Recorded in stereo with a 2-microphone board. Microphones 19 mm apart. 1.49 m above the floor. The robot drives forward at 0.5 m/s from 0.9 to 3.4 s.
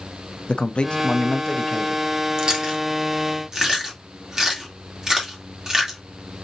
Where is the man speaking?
65° left (ahead or behind), 0.6 m; by 2.0 s 40° left (ahead or behind), 0.9 m.